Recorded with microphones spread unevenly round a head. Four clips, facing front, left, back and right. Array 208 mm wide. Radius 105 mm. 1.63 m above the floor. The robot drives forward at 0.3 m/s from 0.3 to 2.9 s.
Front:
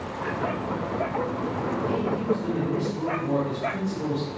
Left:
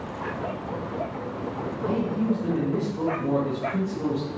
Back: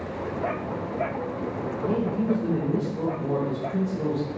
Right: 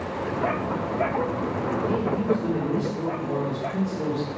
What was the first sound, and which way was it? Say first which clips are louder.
A man speaking: left 1 dB, back 2 dB; 170° right.